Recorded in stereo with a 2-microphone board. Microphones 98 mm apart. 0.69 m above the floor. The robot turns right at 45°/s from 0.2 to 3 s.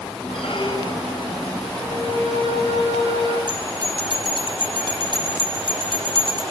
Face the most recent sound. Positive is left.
turn(degrees=-45)  # may be behind; listen again after turning